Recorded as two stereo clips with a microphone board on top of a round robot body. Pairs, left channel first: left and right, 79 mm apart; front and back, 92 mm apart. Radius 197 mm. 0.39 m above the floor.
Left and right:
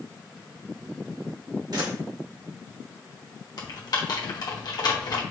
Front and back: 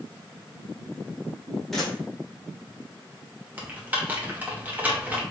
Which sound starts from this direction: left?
Typing on a keyboard, at 3.6 s.